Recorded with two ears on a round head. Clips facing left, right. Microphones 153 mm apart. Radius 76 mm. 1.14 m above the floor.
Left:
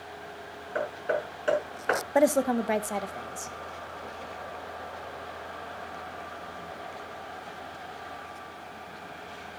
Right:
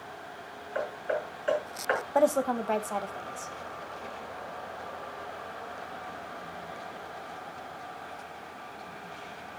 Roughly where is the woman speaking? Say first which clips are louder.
Left 2 dB; centre.